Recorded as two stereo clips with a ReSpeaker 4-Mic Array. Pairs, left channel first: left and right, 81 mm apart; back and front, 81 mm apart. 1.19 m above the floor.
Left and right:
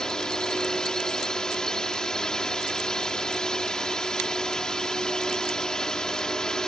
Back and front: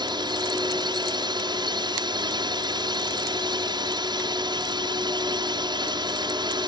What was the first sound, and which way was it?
A drone, 10° left.